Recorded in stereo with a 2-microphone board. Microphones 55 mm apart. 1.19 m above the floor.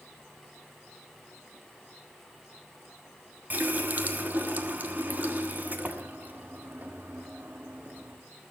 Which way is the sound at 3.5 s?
35° right (ahead or behind).